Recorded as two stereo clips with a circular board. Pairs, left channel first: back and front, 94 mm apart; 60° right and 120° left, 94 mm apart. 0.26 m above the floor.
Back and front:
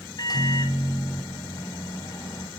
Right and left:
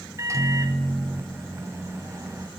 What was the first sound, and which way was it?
A microwave, 165° left.